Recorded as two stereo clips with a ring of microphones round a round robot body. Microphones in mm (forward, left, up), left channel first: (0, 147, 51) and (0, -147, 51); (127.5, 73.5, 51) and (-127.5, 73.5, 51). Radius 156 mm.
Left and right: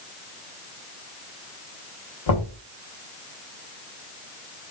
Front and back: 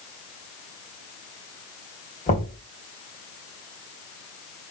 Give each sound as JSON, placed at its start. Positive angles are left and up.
{"t": 2.3, "sound": "knocking", "azimuth_deg": 65, "distance_m": 3.0}